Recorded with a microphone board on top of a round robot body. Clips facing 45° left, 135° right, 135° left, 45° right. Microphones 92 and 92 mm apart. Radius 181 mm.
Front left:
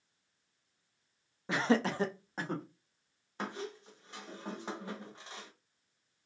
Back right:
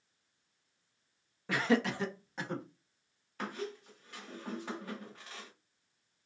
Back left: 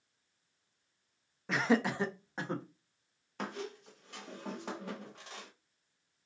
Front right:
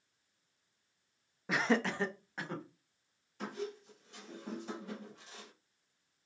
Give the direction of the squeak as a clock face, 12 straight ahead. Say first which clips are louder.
Even, even; 8 o'clock.